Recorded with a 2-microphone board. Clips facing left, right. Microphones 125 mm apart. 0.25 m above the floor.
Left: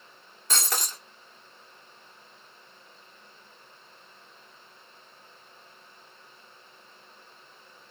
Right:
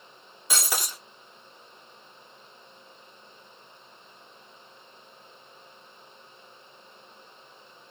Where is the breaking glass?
10° right (ahead or behind), 1.2 m.